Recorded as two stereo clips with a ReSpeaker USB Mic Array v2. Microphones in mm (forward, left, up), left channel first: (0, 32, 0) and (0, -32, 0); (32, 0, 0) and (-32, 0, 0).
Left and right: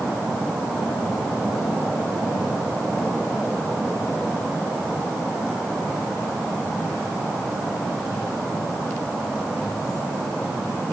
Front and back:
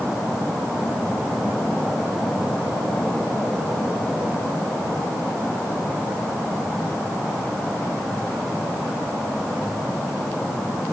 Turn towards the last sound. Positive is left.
No sound to turn to.